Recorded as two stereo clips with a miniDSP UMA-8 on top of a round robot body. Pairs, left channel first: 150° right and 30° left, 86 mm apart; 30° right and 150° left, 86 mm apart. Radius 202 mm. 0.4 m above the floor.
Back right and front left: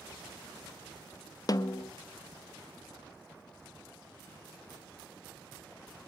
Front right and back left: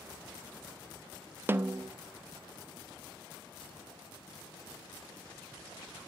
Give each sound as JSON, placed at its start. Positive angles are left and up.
{"t": 1.5, "sound": "a snare drum", "azimuth_deg": -155, "distance_m": 0.5}